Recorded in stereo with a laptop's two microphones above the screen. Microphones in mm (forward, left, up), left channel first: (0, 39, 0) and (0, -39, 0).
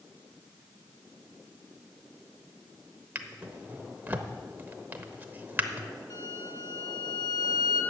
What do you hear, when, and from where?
3.1 s a drawer: 25° right (ahead or behind), 0.8 m
6.1 s a violin: 50° left (ahead or behind), 1.8 m